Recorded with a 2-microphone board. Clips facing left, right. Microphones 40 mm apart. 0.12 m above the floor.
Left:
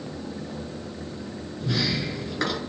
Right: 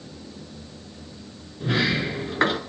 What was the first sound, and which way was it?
A sliding door, 35° right (ahead or behind).